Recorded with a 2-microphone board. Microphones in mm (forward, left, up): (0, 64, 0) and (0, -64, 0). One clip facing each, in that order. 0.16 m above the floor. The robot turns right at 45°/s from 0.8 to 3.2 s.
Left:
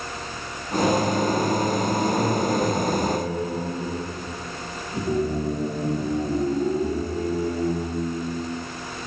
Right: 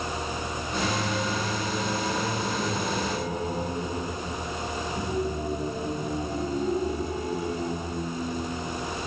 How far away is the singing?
About 0.8 m.